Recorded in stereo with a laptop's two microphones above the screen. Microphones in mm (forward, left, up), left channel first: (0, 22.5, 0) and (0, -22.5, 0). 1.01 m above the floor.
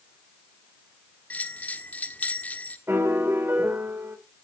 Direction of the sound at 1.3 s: 35° left (ahead or behind).